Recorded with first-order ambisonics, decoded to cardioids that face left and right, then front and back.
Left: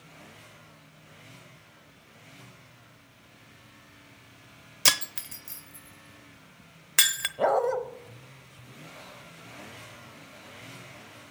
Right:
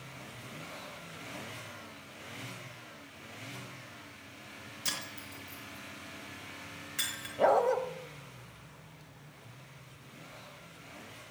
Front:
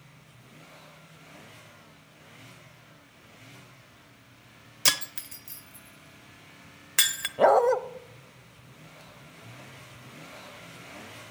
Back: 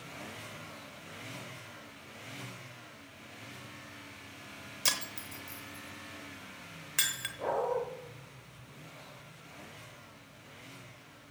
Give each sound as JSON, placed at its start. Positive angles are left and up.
{"t": 4.8, "sound": "breaking glass", "azimuth_deg": 70, "distance_m": 0.8}
{"t": 7.4, "sound": "a dog barking", "azimuth_deg": 10, "distance_m": 0.8}